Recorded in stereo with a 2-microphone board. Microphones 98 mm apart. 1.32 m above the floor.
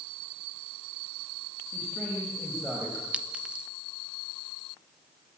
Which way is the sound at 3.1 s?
10° right (ahead or behind).